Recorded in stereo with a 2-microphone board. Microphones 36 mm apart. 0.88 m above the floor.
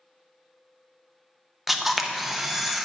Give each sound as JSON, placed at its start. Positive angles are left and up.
{"t": 1.7, "sound": "a camera shutter", "side_deg": -5, "distance_m": 0.6}